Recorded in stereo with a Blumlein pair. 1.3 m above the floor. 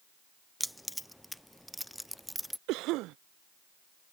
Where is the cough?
40° right.